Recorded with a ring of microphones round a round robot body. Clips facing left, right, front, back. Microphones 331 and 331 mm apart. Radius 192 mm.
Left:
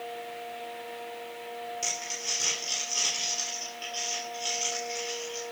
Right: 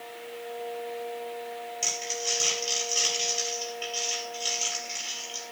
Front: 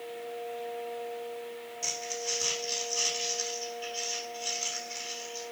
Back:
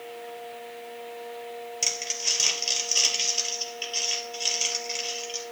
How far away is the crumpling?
About 4 m.